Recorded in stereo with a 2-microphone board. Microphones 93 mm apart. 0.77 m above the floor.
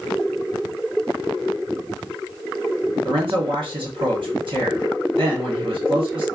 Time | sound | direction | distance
3.0 | a man speaking | 65° right (ahead or behind) | 1.3 m